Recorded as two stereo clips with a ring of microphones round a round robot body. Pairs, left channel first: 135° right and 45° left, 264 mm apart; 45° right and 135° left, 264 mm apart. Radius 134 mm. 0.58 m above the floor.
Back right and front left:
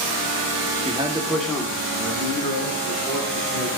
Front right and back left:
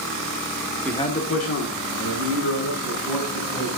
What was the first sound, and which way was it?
A man speaking, 40° left.